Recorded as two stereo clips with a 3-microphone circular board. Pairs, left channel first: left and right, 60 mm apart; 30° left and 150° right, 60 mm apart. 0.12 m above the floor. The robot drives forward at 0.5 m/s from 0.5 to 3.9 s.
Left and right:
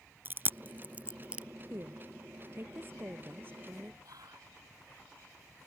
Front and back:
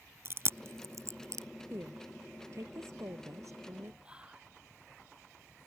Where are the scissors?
No scissors in this recording.